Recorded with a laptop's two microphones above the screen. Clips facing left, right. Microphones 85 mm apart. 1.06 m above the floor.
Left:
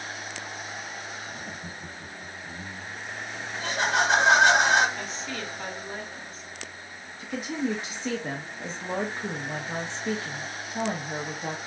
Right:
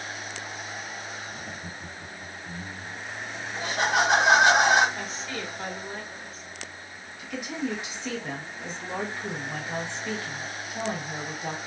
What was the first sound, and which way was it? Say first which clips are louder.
Laughter: even; 25° left (ahead or behind).